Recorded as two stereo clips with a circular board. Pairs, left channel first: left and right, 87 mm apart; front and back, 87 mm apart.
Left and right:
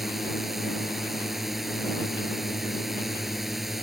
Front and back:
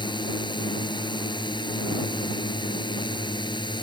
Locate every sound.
0.0 s a drone: straight ahead